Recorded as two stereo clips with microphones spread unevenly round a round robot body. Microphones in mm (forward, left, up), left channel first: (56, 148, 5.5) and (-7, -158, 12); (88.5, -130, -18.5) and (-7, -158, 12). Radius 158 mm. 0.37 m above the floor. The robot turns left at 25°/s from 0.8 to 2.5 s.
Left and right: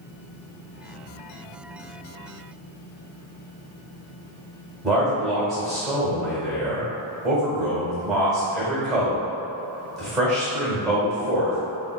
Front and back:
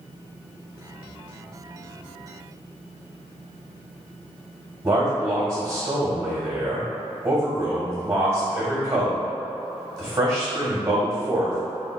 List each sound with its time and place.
4.8 s a man speaking: 165° left, 1.5 m